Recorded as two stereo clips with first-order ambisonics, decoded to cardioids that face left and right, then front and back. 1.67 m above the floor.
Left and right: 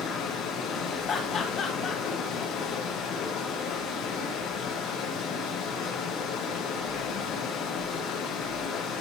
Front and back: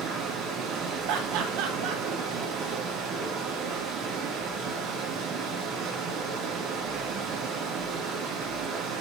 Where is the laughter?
155° left, 1.3 m.